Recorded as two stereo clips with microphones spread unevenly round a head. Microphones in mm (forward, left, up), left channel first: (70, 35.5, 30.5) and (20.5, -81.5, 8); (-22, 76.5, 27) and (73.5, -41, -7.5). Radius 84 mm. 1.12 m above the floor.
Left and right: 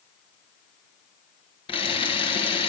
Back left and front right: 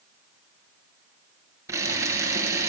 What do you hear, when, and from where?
1.7 s a camera shutter: 20° left, 9 m